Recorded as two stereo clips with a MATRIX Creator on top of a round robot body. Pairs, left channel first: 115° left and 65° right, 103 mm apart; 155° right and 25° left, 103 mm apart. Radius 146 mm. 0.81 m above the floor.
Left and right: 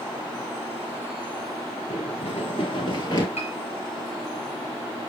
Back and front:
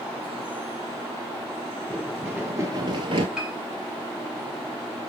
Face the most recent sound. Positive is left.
turn(degrees=105)